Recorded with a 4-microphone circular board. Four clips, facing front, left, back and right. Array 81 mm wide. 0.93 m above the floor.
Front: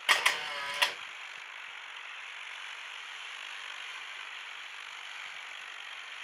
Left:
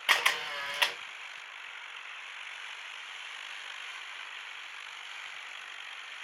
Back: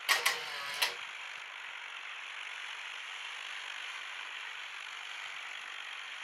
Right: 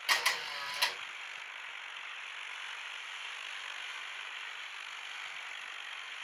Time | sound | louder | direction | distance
0.1 | a camera shutter | left 4 dB, front 4 dB | 50° left | 0.8 m